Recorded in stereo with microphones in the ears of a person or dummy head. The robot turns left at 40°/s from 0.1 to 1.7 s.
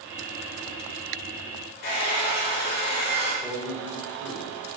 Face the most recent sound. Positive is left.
turn(degrees=-5)  # may be behind; listen again after turning